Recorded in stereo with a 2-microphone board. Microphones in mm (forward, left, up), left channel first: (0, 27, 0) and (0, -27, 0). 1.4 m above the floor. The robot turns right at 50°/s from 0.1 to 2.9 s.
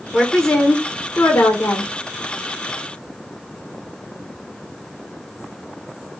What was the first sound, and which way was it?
A woman speaking, straight ahead.